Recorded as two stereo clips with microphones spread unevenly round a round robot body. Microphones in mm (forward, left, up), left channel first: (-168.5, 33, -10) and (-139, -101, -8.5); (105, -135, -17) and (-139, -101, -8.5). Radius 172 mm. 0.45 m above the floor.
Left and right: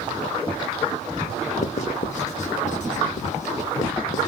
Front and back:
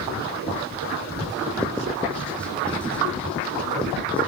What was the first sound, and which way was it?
Writing, 75° left.